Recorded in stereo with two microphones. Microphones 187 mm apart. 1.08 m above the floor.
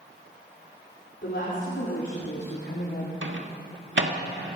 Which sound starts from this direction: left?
A woman speaking, at 1.2 s.